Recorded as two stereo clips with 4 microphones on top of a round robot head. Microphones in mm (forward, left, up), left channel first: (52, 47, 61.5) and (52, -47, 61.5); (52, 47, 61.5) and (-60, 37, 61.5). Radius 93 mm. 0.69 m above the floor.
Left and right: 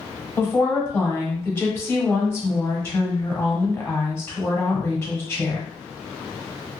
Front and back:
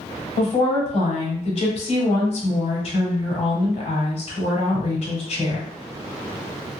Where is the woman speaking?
25° left, 1.6 m.